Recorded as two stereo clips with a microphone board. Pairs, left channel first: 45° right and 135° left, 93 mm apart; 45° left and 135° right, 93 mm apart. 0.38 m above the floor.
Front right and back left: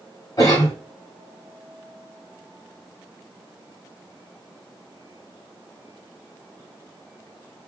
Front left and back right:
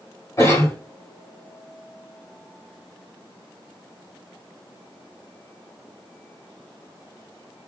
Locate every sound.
0.4 s a cough: 5° right, 2 m